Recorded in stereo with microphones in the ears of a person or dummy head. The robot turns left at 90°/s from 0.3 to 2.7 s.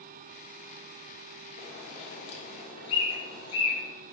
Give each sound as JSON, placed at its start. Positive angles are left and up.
{"t": 1.6, "sound": "a bird", "side_deg": 45, "distance_m": 2.0}